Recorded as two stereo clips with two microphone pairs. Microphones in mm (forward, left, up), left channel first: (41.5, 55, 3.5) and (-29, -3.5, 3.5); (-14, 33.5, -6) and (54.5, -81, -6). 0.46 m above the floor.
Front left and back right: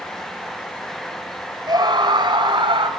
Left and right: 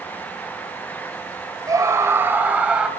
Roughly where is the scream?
Behind right.